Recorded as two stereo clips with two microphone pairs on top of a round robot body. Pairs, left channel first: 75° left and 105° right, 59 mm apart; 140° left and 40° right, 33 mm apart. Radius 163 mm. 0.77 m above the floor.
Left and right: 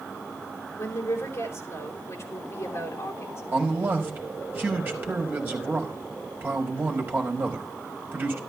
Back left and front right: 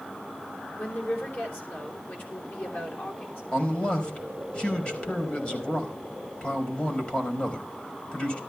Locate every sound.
0.8 s a woman speaking: 115° left, 4.5 m
3.5 s a man speaking: 165° right, 4.5 m